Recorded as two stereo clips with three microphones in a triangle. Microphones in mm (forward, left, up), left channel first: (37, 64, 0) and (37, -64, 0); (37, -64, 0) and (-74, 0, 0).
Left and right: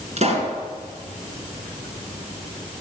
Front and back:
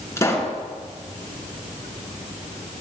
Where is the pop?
95° right, 3 m.